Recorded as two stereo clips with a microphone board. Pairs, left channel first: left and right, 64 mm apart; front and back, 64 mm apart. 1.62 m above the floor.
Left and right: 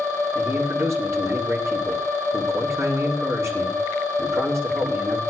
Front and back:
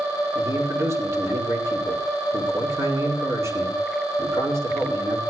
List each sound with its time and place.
0.3 s a man speaking: 135° right, 7 m